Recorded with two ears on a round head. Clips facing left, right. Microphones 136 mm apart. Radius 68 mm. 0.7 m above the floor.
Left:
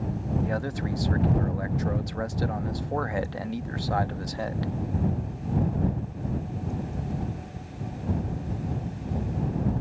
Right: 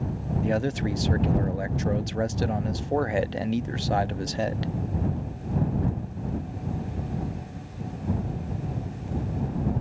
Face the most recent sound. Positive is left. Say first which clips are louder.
# right 4 dB
turn(degrees=-25)  # may be behind; listen again after turning